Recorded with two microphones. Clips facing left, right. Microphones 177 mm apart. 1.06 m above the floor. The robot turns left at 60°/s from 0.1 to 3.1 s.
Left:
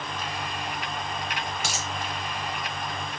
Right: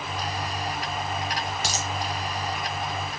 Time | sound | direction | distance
1.6 | a dropped coin | 35° right (ahead or behind) | 0.7 m